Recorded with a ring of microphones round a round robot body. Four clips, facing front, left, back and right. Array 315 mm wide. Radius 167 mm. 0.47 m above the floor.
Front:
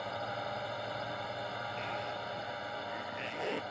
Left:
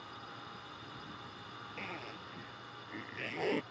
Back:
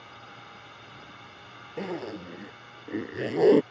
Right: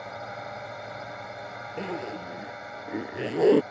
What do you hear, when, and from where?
0.0 s a drone: 55° right
1.8 s a zipper: 140° right